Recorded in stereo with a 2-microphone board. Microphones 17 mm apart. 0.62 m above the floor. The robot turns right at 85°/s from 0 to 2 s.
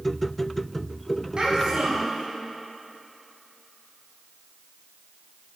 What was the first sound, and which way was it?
A child speaking, 130° right.